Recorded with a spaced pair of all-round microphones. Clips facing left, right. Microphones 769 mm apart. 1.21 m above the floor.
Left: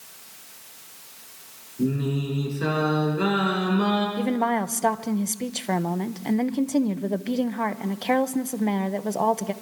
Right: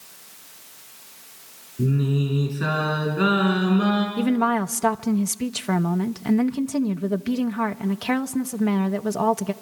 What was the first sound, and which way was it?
Singing, 45° right (ahead or behind).